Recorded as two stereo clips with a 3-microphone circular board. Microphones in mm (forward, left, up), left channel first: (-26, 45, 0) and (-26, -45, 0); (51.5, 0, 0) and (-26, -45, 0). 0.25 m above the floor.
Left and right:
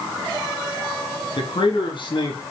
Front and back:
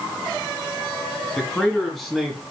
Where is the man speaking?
110° left, 3.5 m; by 2.4 s 120° left, 4.5 m.